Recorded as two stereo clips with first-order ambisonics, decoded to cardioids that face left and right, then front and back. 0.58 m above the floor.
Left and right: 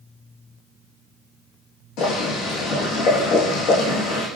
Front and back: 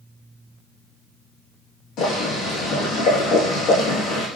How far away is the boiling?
About 6.5 m.